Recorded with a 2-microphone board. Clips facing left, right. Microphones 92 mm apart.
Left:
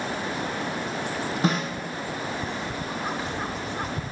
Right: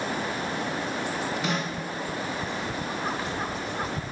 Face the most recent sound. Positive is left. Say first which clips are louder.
# left 7 dB
turn(degrees=40)  # may be behind; listen again after turning